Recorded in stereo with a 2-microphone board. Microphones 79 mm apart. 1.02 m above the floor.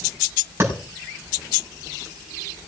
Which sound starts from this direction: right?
A clap, at 0.6 s.